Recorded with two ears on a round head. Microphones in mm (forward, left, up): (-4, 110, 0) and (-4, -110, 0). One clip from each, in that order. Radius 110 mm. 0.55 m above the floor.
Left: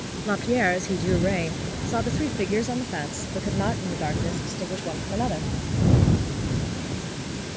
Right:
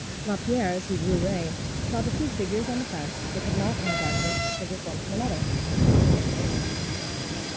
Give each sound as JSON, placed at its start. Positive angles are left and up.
{"t": 0.2, "sound": "a woman speaking", "side_deg": 65}